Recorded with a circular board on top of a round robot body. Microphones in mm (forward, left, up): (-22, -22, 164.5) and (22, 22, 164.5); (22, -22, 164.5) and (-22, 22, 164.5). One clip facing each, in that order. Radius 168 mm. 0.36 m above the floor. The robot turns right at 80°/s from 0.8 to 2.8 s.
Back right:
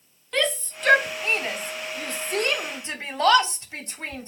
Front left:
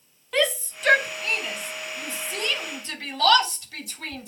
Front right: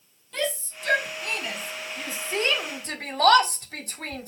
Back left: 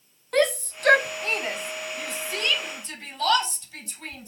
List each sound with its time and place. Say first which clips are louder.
0.3 s a shout: front left 1 dB, back left 7 dB; 130° left, 3 m; by 4.3 s 70° right, 3 m